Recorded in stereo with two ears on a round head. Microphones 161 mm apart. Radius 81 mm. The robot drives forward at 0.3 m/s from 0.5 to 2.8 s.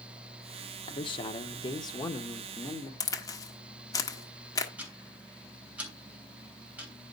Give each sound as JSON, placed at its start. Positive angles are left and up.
{"t": 0.9, "sound": "a man speaking", "side_deg": 30, "distance_m": 1.0}
{"t": 3.0, "sound": "a crack", "side_deg": 20, "distance_m": 1.3}
{"t": 4.8, "sound": "ticking", "side_deg": -10, "distance_m": 3.0}